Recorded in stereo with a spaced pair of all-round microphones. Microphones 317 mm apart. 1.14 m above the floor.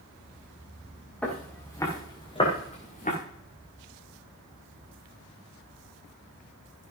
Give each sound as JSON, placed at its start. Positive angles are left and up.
{"t": 1.2, "sound": "footsteps", "side_deg": 5, "distance_m": 7.0}